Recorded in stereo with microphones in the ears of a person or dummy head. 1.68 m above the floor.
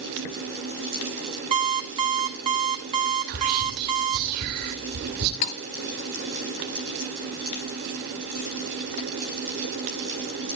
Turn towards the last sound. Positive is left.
turn(degrees=40)  # may be behind; listen again after turning